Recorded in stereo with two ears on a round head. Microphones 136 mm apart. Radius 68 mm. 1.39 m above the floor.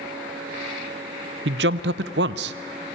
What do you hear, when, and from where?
1.4 s a man speaking: 80° right, 0.7 m